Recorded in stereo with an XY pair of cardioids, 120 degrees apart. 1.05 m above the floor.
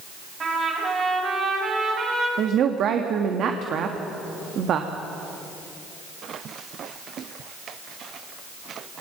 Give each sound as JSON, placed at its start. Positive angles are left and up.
{"t": 0.4, "sound": "a trumpet", "azimuth_deg": -40, "distance_m": 6.0}
{"t": 2.4, "sound": "a woman speaking", "azimuth_deg": -60, "distance_m": 1.5}